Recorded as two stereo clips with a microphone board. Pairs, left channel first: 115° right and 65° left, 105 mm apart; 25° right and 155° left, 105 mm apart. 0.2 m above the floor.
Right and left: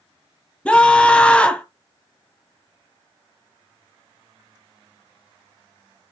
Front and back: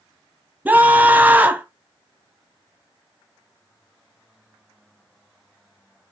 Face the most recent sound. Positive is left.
turn(degrees=-170)